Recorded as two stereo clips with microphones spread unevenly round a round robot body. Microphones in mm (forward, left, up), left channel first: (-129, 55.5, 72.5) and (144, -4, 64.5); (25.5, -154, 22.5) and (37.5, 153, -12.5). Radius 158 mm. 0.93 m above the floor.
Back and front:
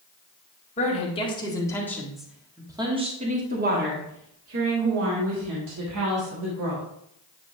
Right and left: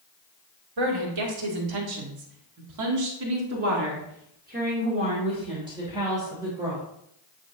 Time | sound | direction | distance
0.8 | a woman speaking | 100° left | 2 m